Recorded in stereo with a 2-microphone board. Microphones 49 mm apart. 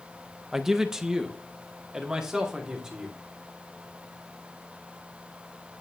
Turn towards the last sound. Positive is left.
turn(degrees=-15)  # may be behind; listen again after turning